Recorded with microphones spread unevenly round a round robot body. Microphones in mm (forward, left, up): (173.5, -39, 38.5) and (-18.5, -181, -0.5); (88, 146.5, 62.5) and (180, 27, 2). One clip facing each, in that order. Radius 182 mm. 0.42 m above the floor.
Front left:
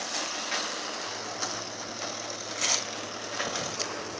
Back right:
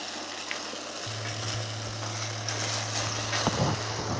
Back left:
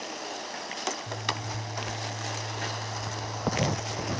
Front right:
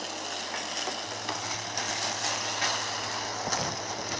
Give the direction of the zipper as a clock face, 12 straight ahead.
6 o'clock.